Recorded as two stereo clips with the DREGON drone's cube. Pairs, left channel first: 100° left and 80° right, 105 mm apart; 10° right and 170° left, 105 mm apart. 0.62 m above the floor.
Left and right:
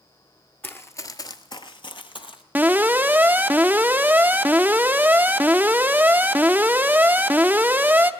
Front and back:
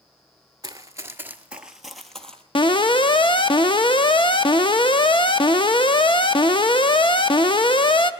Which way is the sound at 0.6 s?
165° left.